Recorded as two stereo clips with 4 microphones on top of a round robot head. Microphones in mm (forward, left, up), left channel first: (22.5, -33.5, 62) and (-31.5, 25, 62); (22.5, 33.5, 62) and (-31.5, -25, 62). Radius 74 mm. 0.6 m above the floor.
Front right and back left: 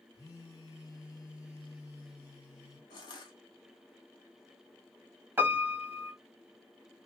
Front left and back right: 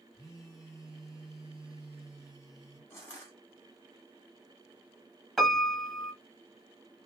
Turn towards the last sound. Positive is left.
turn(degrees=135)